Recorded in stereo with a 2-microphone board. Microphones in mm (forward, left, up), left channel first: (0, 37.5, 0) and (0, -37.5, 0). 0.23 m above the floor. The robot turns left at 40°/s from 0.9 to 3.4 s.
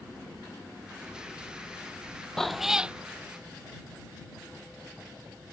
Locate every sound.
2.4 s a cat meowing: 5° left (ahead or behind); by 3.0 s 15° right (ahead or behind)